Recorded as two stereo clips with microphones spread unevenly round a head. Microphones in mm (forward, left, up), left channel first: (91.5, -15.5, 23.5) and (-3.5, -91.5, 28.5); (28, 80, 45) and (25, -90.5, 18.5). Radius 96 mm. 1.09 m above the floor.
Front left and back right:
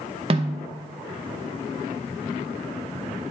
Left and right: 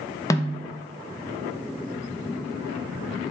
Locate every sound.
0.3 s a snare drum: 165° left, 0.7 m